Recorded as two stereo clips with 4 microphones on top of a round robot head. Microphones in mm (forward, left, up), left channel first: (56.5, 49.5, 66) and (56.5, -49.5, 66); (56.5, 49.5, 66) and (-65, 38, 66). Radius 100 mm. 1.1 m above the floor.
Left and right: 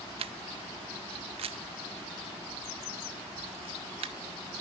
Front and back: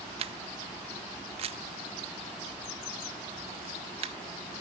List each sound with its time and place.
0.2 s a camera shutter: 125° right